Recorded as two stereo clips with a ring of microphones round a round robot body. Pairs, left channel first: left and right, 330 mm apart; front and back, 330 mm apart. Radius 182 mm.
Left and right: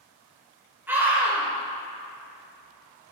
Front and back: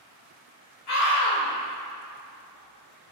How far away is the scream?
About 1.8 m.